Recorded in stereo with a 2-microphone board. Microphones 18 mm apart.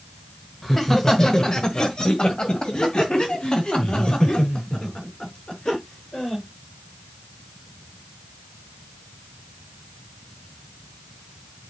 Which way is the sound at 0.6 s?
15° left (ahead or behind).